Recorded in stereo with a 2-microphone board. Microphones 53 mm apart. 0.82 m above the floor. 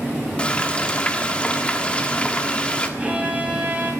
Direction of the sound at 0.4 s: 20° left (ahead or behind).